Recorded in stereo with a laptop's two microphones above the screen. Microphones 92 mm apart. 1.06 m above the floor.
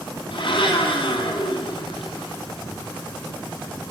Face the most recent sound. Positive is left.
turn(degrees=65)  # may be behind; listen again after turning